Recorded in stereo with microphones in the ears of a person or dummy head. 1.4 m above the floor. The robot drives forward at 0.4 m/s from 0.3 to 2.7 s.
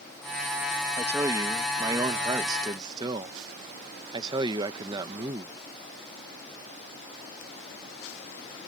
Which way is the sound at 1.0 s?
20° right (ahead or behind).